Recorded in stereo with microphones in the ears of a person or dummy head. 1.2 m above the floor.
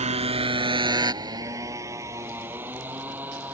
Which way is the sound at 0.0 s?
35° right (ahead or behind).